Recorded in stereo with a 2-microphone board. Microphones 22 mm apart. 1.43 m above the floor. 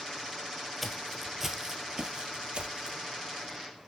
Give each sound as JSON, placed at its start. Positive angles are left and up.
{"t": 0.8, "sound": "footsteps", "side_deg": 0, "distance_m": 2.0}